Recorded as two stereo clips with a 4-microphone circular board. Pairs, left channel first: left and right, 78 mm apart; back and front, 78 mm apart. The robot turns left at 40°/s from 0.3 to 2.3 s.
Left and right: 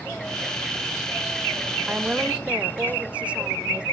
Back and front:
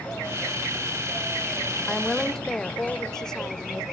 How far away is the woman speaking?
About 0.9 m.